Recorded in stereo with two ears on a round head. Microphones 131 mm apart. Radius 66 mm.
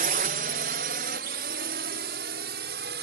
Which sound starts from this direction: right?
A drone, at 0.0 s.